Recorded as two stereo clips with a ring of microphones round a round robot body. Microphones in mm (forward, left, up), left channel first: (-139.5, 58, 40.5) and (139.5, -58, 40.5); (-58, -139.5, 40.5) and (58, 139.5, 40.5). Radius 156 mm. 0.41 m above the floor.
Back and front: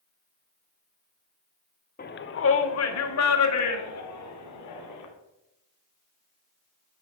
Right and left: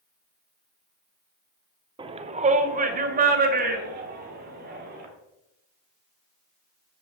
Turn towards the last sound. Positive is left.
turn(degrees=130)